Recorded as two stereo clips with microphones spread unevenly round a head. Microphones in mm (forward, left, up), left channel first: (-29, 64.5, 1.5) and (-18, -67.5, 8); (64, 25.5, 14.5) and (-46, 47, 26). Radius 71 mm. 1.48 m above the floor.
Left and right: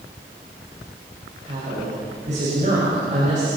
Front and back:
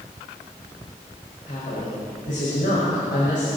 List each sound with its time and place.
1.5 s a woman speaking: 40° right, 6 m